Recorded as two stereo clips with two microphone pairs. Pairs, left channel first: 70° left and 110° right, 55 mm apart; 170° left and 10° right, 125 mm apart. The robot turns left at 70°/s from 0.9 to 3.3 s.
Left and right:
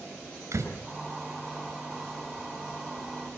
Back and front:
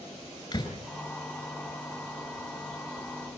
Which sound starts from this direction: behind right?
A door slam, at 0.5 s.